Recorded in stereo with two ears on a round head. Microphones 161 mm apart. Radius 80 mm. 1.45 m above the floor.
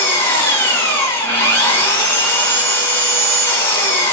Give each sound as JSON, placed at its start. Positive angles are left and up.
{"t": 0.0, "sound": "an engine running", "side_deg": 15, "distance_m": 1.6}